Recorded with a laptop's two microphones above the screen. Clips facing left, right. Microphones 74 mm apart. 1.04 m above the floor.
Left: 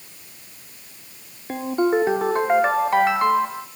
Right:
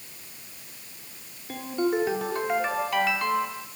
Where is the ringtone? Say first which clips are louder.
Left 6 dB; 35° left (ahead or behind), 1.6 m.